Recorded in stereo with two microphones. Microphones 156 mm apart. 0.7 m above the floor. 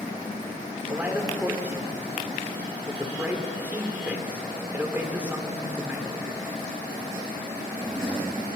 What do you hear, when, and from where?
0.9 s a man speaking: 10° right (ahead or behind), 1.6 m